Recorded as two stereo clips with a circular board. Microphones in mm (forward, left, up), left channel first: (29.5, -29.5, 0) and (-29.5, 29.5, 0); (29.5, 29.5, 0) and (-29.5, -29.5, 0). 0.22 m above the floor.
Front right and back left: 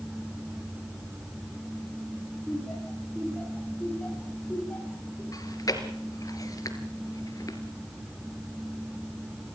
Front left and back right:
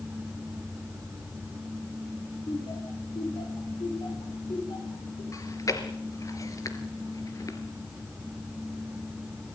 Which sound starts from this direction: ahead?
Chewing, at 5.3 s.